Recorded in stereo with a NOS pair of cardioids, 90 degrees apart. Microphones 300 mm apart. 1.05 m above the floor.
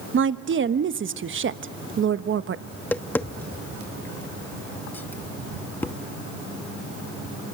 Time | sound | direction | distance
0.1 | a woman speaking | 45° right | 1.2 m
2.7 | tapping | 5° left | 0.8 m